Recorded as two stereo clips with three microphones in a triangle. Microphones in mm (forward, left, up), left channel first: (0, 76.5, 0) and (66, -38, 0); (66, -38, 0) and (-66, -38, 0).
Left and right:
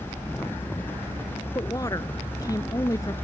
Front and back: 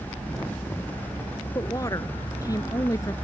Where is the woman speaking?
60° left.